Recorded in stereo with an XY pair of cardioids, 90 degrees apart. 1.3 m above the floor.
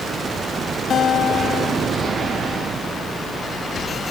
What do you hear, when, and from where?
0.9 s a guitar: 65° left